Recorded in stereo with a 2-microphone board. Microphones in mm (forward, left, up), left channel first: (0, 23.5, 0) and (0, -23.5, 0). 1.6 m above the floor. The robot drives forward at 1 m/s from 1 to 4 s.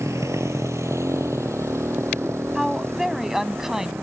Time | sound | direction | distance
0.0 | a motorcycle | 80° right | ?
2.5 | a woman speaking | 10° right (ahead or behind) | ?